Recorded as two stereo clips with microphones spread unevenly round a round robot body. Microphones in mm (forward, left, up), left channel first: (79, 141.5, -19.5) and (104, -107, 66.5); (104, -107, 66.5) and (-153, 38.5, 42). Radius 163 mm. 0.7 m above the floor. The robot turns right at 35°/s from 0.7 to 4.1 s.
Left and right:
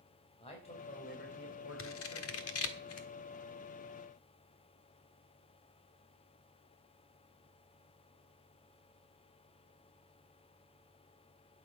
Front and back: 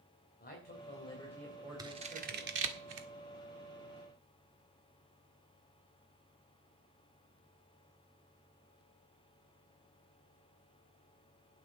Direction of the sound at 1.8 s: 75° left.